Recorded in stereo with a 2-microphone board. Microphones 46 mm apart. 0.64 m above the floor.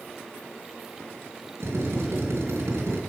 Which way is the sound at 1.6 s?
85° right.